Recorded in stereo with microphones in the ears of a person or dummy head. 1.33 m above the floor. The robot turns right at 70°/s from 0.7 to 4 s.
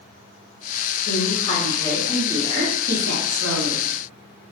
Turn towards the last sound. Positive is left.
turn(degrees=-40)